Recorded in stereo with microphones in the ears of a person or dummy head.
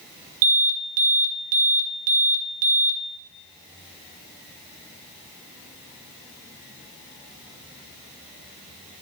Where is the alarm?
75° right (ahead or behind), 0.9 m.